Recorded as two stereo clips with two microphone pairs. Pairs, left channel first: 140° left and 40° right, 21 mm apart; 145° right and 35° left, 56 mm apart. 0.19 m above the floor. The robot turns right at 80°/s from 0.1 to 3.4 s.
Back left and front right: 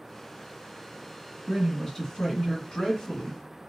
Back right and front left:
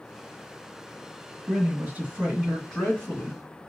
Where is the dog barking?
I don't hear a dog barking.